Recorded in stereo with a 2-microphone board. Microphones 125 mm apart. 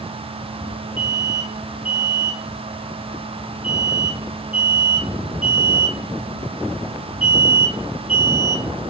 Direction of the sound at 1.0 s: 65° left (ahead or behind).